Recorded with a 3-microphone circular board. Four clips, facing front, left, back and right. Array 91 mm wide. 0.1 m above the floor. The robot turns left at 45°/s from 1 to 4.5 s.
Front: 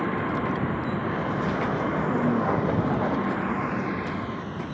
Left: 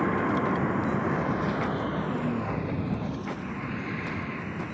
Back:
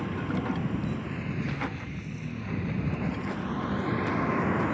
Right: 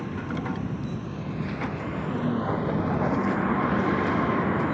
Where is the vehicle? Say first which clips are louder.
Left 6 dB, front 5 dB; 55° left; by 4.7 s 115° right.